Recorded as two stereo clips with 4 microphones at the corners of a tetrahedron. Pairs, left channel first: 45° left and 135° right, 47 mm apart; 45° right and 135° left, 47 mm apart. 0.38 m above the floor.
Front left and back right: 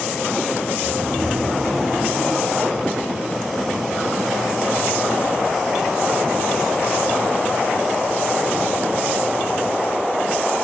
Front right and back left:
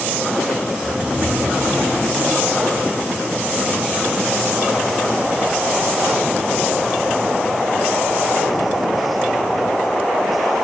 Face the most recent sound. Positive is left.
turn(degrees=-125)